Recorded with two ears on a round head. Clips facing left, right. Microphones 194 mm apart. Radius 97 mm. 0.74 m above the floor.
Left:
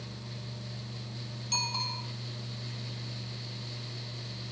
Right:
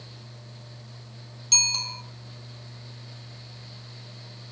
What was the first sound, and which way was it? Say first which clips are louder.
A bicycle bell: left 1 dB; 30° right (ahead or behind).